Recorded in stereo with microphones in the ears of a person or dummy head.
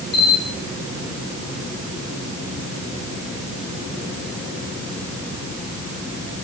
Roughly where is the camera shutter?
Left.